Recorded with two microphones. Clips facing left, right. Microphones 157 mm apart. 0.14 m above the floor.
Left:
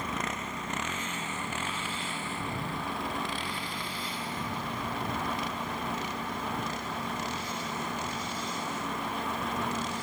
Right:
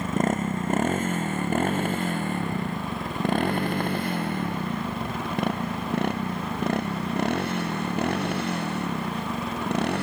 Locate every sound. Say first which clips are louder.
0.0 s a motorcycle: right 10 dB; 45° right (ahead or behind); by 10.0 s 60° right (ahead or behind)